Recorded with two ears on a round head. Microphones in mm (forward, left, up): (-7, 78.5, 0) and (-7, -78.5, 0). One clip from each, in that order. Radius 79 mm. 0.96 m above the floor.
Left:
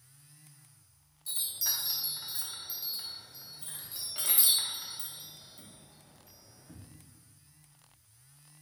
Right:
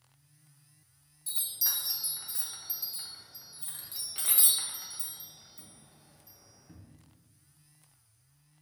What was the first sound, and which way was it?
A chime, 10° right (ahead or behind).